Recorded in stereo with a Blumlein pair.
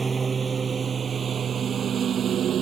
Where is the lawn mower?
15° right; by 2.6 s 25° right.